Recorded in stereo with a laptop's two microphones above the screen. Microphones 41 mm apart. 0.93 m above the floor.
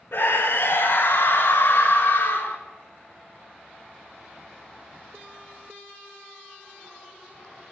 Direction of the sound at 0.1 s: 70° left (ahead or behind).